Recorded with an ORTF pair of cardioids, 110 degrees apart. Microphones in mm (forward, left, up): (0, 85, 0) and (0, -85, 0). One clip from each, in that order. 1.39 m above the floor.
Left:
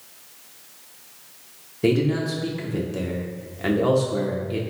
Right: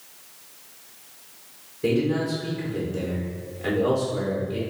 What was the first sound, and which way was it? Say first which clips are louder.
A man speaking: left 2 dB; 40° left.